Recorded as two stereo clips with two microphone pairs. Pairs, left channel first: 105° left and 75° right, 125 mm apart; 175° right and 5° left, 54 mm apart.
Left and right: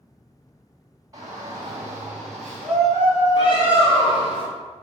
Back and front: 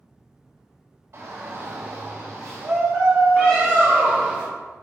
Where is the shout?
15° right, 2.0 m; by 4.4 s 65° left, 1.8 m.